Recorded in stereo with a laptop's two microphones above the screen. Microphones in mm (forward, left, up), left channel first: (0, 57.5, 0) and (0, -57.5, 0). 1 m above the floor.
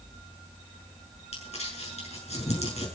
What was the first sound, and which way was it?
Crumpling, 65° left (ahead or behind).